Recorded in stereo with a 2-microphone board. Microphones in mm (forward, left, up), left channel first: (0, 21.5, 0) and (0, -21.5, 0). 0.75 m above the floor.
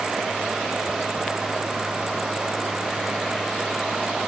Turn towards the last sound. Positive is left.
No sound to turn to.